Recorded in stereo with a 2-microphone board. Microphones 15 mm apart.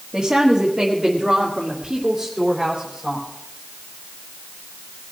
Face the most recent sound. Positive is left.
turn(degrees=-40)  # may be behind; listen again after turning